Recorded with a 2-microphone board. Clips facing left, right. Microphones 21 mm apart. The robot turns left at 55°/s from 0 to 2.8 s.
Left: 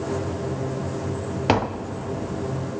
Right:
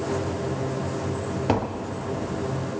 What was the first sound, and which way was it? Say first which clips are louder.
Tapping: left 4 dB; 40° left (ahead or behind).